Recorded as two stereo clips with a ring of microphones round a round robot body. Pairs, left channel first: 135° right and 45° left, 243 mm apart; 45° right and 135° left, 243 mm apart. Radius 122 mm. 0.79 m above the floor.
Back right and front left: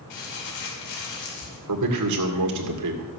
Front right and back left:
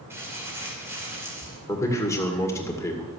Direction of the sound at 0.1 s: 145° right.